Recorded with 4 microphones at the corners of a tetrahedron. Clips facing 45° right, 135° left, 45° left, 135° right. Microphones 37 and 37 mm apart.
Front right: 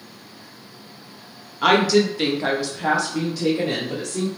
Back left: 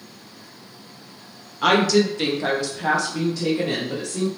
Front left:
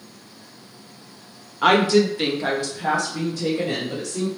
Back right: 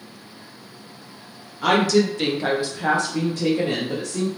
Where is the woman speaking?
35° left, 0.7 m; by 4.3 s 135° right, 1.4 m.